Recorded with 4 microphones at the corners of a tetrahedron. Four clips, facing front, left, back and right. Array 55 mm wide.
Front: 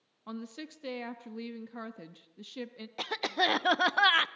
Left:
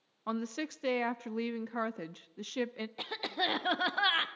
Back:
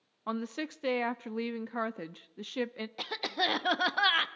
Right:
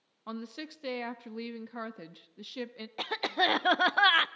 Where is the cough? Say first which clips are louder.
Right 6 dB, front 3 dB; 70° right, 0.8 m.